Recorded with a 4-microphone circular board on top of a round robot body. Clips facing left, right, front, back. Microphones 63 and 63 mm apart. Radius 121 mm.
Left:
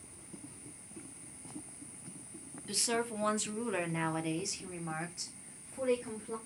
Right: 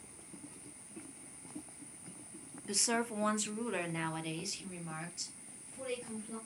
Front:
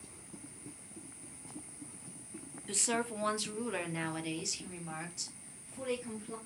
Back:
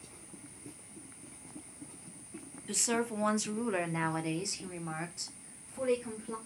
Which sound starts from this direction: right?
A woman speaking, at 2.7 s.